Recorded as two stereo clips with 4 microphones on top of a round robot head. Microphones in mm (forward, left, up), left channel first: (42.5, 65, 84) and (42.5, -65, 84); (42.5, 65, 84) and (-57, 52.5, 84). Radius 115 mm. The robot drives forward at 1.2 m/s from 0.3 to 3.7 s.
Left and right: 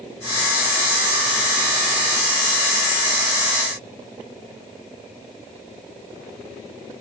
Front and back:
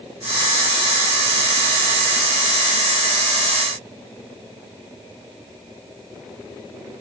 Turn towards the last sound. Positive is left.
No sound to turn to.